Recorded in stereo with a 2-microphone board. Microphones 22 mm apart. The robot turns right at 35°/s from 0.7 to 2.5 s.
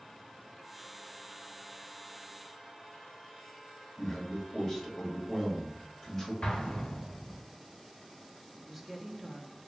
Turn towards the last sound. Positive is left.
turn(degrees=-5)  # may be behind; listen again after turning